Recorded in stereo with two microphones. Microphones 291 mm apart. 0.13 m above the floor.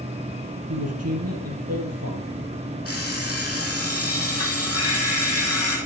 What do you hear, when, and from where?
0.7 s a man speaking: 60° right (ahead or behind), 4 m
2.9 s an alarm clock: 50° left (ahead or behind), 3 m